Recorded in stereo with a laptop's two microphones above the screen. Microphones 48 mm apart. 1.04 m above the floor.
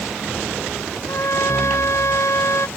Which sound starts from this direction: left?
A trumpet, at 1.1 s.